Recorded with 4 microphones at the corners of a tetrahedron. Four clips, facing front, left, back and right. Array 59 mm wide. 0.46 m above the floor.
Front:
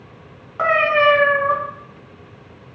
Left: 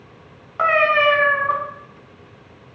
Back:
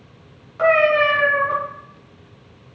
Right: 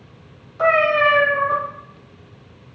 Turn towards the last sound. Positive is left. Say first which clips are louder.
# even, even
turn(degrees=65)